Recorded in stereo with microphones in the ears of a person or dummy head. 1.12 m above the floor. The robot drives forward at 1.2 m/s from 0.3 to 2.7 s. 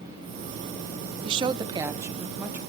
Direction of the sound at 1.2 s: 30° right (ahead or behind).